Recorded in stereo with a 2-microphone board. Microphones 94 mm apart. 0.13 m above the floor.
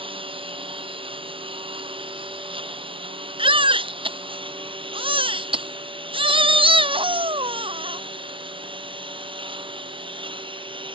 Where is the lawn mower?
70° right (ahead or behind); by 10.9 s 65° right (ahead or behind).